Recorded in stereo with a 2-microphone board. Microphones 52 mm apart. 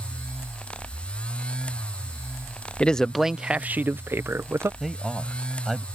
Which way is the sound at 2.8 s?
20° left (ahead or behind).